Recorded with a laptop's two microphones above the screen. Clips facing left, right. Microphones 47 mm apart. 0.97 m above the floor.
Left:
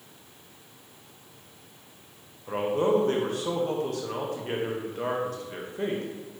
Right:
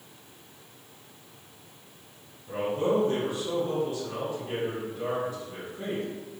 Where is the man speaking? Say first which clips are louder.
Left 2 dB; 55° left (ahead or behind), 0.9 m.